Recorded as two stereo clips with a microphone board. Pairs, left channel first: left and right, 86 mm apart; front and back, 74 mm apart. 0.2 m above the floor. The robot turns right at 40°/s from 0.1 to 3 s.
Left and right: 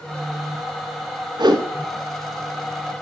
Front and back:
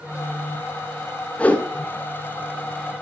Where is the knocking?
No knocking in this recording.